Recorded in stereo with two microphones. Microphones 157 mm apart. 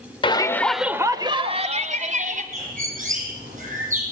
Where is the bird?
55° right (ahead or behind), 7.5 m.